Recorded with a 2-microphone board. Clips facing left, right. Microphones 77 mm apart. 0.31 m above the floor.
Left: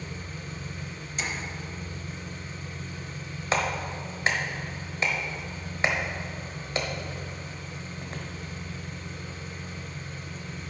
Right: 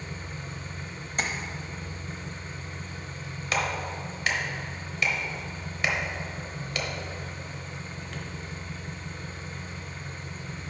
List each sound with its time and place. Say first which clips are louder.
0.0 s an engine running: even; 30° right (ahead or behind), 1.2 m
1.2 s tapping: right 3 dB; 55° right (ahead or behind), 0.9 m
3.5 s a clap: left 1 dB; 35° left (ahead or behind), 1.0 m